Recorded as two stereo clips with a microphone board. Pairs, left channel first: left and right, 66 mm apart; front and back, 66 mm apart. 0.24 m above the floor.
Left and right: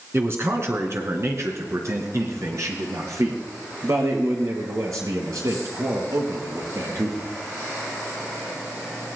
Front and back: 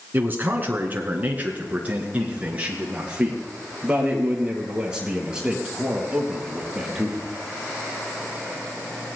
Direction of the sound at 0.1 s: 130° right.